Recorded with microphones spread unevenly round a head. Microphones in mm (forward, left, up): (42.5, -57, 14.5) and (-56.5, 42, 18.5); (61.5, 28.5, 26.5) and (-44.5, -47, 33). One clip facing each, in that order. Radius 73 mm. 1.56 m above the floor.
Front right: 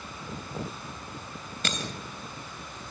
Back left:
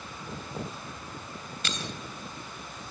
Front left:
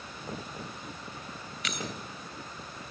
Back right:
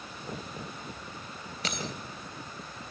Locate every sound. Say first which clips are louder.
1.6 s breaking glass: front right 3 dB, back right 1 dB; 90° right, 3 m